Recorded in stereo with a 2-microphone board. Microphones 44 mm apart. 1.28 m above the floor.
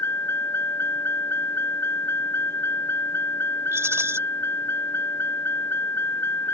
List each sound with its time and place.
0.0 s a vehicle: 75° left (ahead or behind)
3.7 s a rattle: 90° right